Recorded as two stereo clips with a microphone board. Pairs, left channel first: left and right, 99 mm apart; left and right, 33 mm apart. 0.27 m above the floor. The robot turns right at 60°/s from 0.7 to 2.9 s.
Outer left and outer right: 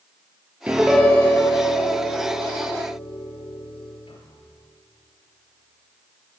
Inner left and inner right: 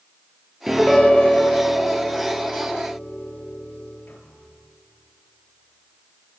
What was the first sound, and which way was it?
A piano, 15° right.